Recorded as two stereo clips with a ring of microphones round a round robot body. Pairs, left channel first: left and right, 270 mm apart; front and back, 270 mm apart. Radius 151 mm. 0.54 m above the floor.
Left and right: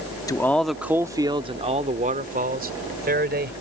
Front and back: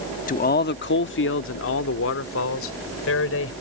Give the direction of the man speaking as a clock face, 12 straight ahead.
11 o'clock.